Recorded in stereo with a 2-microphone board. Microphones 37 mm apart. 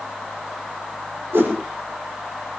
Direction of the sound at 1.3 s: 85° right.